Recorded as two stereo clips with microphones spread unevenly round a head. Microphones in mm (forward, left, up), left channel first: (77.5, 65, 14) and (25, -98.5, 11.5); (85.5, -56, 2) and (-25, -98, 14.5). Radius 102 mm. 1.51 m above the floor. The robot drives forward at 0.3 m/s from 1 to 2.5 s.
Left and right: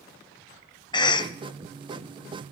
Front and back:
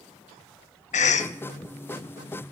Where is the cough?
10° left, 0.9 m.